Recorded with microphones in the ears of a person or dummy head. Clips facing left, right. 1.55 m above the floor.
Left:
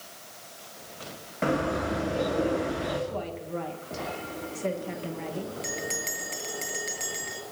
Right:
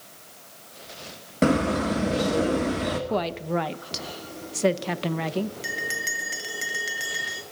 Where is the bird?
45° right (ahead or behind), 1.7 m.